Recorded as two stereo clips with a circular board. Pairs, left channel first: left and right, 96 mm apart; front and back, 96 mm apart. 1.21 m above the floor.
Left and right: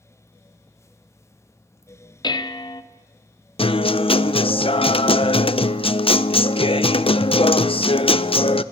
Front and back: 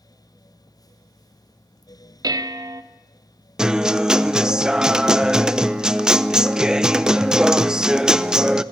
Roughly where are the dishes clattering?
Behind left.